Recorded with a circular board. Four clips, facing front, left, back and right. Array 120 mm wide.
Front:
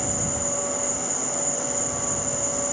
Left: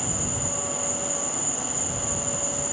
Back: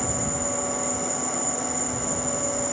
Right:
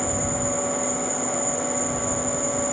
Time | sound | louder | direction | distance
0.0 | an insect | right 6 dB, back 1 dB | 35° left | ?